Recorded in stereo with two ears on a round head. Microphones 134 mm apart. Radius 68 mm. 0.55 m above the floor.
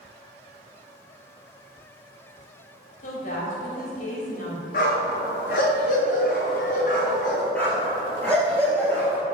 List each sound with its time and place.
3.0 s a woman speaking: 55° left (ahead or behind), 3 m
4.7 s a dog barking: 55° left (ahead or behind), 3.5 m
7.5 s a dog barking: 10° left (ahead or behind), 2.5 m